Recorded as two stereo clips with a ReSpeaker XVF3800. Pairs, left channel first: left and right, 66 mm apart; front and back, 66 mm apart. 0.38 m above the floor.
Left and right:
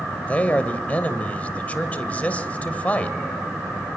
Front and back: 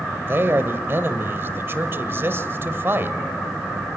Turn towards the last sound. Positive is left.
turn(degrees=150)